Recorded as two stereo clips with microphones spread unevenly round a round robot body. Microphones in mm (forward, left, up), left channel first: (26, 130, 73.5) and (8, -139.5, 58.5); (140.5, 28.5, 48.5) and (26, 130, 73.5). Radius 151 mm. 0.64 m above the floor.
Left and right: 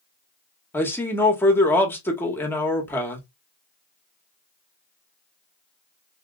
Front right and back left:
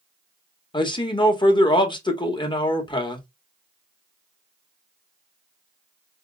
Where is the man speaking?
5° left, 1.3 m.